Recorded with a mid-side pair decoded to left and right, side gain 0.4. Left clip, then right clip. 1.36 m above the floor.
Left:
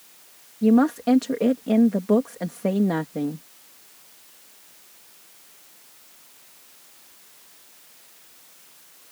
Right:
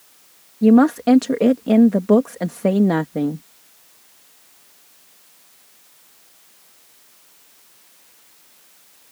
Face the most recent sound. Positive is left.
turn(degrees=-50)